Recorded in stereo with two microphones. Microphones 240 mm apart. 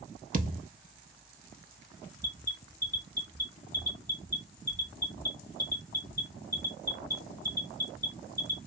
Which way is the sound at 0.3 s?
35° right (ahead or behind).